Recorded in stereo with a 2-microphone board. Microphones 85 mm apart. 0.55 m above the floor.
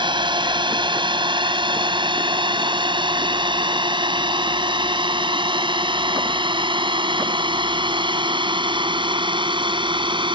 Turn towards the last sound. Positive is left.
turn(degrees=-70)  # may be behind; listen again after turning